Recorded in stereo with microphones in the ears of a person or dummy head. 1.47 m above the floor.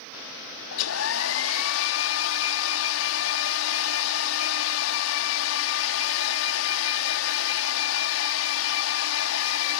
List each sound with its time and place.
0.7 s a hair dryer: 80° left